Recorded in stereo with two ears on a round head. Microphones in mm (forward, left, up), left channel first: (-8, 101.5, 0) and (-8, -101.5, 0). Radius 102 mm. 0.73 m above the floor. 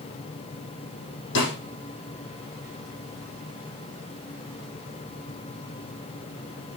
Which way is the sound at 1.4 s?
55° left (ahead or behind).